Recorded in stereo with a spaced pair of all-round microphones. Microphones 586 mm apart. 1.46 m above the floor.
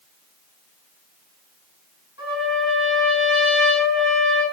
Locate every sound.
2.2 s a trumpet: 80° left, 7.5 m